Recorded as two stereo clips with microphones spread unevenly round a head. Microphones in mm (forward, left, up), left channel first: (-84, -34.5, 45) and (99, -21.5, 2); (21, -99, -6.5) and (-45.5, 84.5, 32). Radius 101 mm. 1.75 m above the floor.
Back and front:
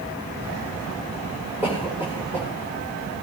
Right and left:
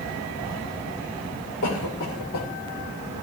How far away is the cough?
About 7.5 m.